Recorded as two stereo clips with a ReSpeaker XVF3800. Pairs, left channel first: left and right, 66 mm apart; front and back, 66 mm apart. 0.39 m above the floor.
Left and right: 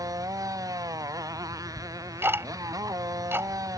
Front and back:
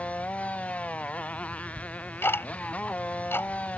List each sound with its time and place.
0.0 s a motorcycle: 70° right
1.8 s ticking: 45° right